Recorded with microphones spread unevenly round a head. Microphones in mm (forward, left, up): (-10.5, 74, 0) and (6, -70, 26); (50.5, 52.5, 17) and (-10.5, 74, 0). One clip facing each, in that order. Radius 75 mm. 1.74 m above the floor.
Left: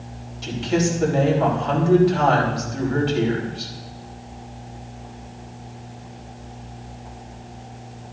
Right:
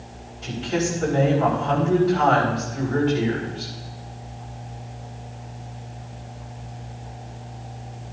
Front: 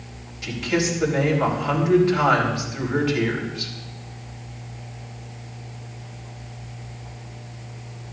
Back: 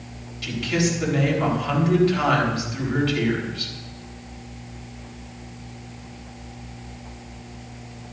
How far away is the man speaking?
About 4 m.